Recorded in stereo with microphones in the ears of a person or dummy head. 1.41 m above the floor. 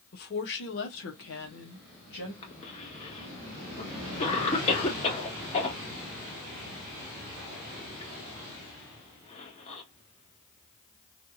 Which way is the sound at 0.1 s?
55° left (ahead or behind).